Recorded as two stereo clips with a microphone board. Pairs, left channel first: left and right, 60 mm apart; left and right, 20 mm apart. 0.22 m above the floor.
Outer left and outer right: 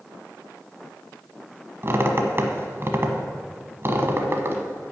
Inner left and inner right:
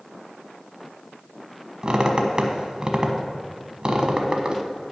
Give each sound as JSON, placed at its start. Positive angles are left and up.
{"t": 1.8, "sound": "a squeak", "side_deg": -45, "distance_m": 0.9}